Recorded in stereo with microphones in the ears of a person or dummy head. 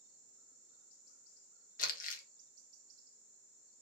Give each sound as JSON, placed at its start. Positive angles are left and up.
{"t": 1.8, "sound": "crumpling", "side_deg": 35, "distance_m": 0.7}